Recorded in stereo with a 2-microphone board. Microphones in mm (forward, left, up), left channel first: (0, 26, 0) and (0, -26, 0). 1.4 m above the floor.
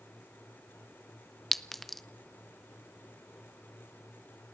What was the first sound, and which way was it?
A clink, 5° left (ahead or behind).